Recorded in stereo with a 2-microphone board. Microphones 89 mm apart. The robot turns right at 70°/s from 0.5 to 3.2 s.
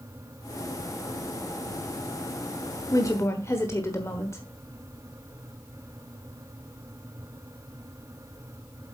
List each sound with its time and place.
2.9 s a woman speaking: 45° left (ahead or behind), 1.3 m; by 4.4 s 30° left (ahead or behind), 1.3 m